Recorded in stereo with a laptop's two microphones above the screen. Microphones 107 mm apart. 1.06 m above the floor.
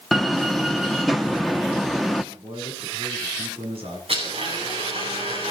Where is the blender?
70° right (ahead or behind), 9 m.